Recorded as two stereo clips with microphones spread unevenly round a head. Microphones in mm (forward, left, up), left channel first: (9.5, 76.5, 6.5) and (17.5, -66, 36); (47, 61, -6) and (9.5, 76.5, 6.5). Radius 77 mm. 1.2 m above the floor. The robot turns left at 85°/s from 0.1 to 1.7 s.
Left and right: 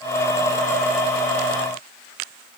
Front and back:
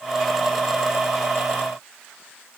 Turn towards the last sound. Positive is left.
No sound to turn to.